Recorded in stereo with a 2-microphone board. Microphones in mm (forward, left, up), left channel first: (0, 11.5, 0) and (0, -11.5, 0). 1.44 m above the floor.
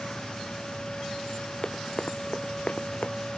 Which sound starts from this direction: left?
Running footsteps, at 1.6 s.